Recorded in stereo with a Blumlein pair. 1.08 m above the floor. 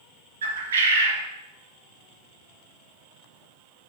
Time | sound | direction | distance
0.4 | a bird | 65° right | 0.7 m